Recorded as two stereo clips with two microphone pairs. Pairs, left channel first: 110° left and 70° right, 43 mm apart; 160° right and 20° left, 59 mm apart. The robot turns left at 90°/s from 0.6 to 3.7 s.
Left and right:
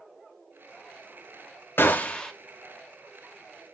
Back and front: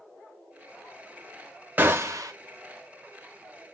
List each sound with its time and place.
1.8 s a gunshot: 80° left, 0.5 m; by 2.3 s 30° left, 0.5 m